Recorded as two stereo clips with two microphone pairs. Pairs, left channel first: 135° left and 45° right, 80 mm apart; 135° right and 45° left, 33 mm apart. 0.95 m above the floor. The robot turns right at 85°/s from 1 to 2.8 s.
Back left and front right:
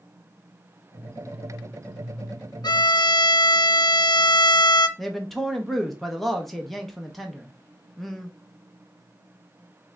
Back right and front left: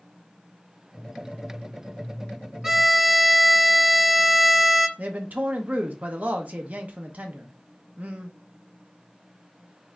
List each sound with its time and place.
2.6 s a violin: 120° left, 0.7 m; by 4.9 s 130° left, 0.7 m
5.0 s a man speaking: 50° left, 0.8 m